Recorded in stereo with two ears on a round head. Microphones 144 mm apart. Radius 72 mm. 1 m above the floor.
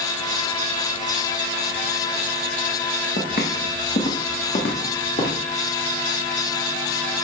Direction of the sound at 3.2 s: 65° left (ahead or behind).